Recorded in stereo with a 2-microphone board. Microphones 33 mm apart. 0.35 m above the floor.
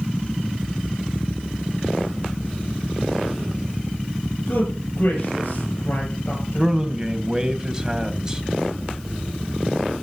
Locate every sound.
4.5 s a man speaking: 60° left (ahead or behind), 7 m
6.6 s a man speaking: 20° right (ahead or behind), 2.5 m